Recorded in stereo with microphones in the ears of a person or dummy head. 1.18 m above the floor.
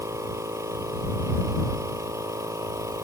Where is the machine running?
20° right (ahead or behind).